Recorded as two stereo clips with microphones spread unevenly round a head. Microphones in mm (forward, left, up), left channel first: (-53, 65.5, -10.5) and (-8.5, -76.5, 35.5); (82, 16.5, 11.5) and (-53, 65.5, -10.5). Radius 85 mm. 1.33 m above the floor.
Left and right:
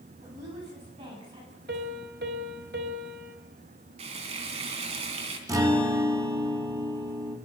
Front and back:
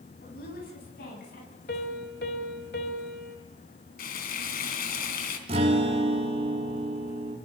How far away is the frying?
About 3 m.